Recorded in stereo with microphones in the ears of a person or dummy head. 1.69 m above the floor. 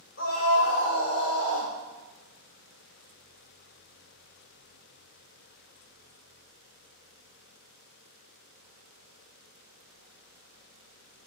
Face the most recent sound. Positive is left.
turn(degrees=10)  # may be behind; listen again after turning